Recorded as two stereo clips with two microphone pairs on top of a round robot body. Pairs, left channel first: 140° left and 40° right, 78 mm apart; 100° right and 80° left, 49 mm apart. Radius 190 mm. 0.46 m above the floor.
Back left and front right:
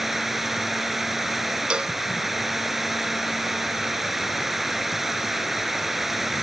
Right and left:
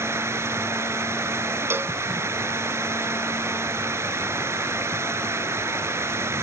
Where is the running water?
50° left.